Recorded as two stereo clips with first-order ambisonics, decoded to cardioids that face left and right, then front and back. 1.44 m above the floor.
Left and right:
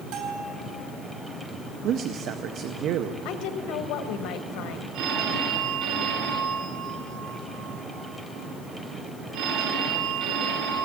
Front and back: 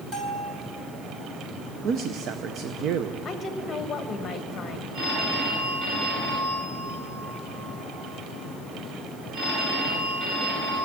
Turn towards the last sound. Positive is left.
turn(degrees=-125)